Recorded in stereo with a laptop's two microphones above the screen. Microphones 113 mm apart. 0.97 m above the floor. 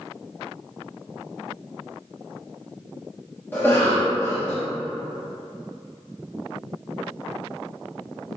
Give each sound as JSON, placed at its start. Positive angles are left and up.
{"t": 3.5, "sound": "a cough", "side_deg": 20, "distance_m": 0.8}